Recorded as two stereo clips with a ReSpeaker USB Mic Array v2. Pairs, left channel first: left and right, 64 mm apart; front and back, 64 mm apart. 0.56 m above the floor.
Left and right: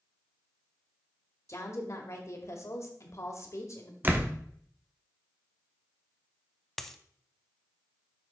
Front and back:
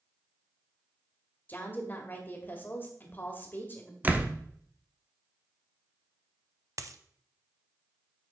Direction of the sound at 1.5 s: 55° left.